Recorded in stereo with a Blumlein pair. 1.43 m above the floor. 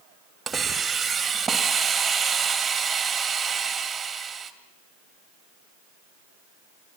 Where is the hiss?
15° right, 2 m.